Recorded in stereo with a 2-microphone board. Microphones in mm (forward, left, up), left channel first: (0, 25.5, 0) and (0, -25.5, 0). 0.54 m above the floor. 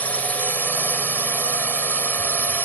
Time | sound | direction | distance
0.0 | a drone | 30° left (ahead or behind) | ?